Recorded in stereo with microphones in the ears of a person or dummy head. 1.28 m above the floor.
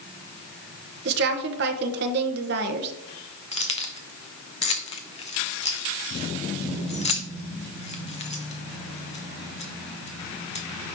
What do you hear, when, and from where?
1.1 s a woman speaking: 55° right (ahead or behind), 1.1 m
3.5 s keys jangling: 35° left (ahead or behind), 1.0 m